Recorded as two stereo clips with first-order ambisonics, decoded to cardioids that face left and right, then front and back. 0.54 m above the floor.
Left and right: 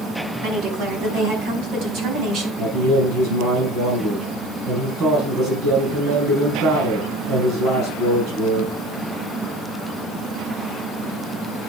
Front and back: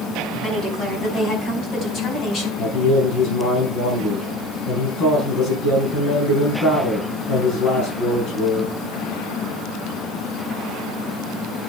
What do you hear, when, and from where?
0.4 s a woman speaking: 80° right, 5 m; by 2.5 s 55° right, 4 m
2.6 s a man speaking: 55° right, 6.5 m